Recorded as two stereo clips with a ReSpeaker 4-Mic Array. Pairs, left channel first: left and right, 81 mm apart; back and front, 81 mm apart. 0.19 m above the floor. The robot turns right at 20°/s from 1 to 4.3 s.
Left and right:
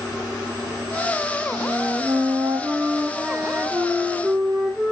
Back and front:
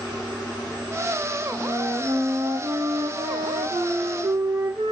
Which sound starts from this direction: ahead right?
A flute, at 1.5 s.